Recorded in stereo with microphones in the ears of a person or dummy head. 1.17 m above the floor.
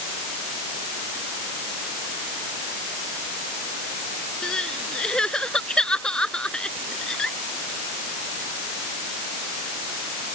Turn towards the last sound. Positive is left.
turn(degrees=5)  # may be behind; listen again after turning